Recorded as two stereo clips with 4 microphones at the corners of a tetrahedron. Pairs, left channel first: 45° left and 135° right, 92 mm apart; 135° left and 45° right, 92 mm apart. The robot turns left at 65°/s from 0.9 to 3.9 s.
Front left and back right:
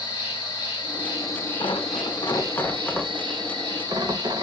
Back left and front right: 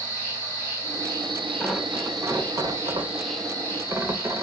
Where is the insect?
20° left, 1.5 m; by 4.4 s 175° right, 1.5 m.